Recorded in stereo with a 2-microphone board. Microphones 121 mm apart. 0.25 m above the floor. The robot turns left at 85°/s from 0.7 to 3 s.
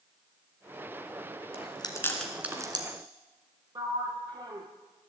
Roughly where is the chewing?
Left.